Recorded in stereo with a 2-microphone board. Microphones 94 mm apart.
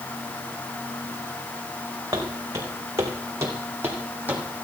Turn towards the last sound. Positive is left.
turn(degrees=-15)  # may be behind; listen again after turning